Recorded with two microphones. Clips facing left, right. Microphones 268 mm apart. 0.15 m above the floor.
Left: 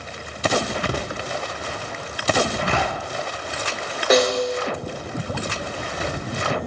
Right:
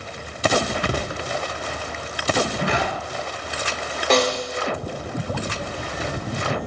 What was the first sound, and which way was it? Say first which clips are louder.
A zipper: even; 65° right (ahead or behind).